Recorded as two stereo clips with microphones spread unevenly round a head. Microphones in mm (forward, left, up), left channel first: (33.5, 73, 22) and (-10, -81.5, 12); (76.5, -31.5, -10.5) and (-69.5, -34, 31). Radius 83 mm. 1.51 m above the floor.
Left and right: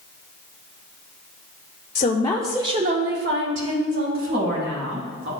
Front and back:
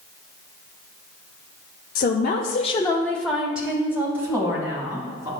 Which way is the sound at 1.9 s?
25° left.